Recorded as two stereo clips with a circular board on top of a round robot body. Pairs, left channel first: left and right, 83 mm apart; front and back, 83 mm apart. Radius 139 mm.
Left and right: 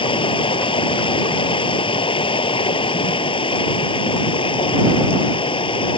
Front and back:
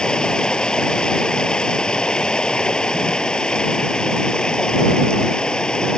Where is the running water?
80° left.